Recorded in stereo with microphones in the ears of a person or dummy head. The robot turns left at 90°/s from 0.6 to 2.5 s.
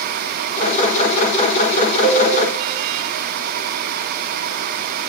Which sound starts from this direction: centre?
A cowbell, at 2.0 s.